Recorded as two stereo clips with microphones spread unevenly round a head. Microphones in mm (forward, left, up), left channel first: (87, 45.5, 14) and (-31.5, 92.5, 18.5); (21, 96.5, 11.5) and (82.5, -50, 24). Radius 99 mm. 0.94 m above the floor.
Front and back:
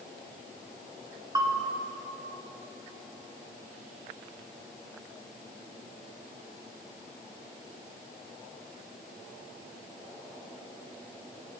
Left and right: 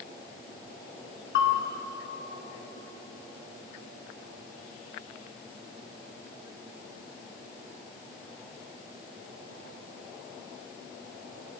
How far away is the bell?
About 1.8 m.